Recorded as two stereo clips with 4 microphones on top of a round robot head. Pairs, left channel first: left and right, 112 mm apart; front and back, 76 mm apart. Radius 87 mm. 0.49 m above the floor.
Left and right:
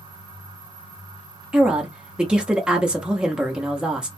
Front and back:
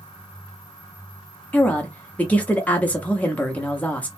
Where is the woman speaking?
25° right, 0.7 m.